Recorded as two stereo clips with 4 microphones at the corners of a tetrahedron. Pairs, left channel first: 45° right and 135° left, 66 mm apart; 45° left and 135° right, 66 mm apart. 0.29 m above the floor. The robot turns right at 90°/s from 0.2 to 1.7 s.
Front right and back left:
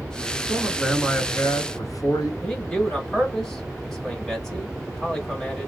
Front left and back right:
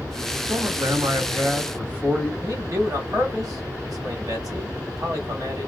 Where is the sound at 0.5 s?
170° right, 2.5 m; by 2.3 s 60° right, 2.5 m.